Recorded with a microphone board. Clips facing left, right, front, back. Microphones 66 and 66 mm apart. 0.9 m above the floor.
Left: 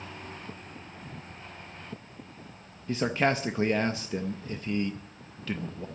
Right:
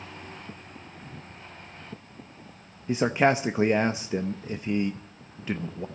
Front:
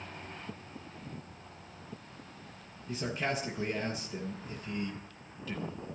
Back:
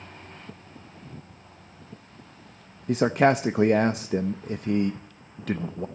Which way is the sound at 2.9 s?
160° right.